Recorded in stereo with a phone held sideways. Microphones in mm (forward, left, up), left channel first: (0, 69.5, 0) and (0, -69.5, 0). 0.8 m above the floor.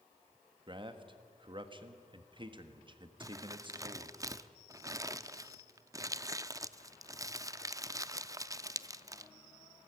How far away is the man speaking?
About 1.5 m.